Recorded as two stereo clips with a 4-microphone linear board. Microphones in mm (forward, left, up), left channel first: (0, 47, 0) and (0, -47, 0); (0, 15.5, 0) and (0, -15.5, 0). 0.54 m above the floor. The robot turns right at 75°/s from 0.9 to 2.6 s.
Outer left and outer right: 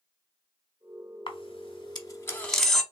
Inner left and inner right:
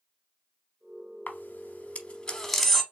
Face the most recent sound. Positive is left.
turn(degrees=0)  # may be behind; listen again after turning